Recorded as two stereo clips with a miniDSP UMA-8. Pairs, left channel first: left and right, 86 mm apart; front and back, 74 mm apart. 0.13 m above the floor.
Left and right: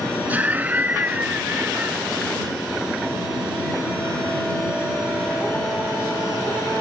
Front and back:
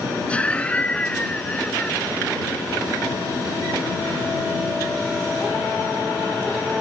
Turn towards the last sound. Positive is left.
turn(degrees=-50)